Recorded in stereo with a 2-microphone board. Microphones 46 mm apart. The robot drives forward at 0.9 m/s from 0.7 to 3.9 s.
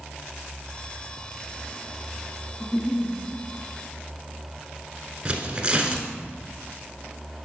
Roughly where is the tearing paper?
Right.